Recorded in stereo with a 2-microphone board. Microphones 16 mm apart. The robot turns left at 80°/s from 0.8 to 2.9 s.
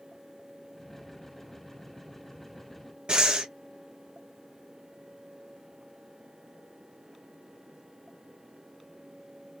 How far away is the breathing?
About 1.2 m.